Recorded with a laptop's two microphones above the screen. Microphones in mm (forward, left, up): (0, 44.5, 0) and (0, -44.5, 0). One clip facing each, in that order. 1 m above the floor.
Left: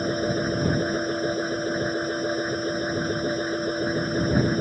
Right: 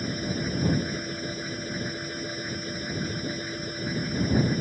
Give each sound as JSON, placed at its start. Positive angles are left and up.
{"t": 0.0, "sound": "a machine running", "side_deg": 45}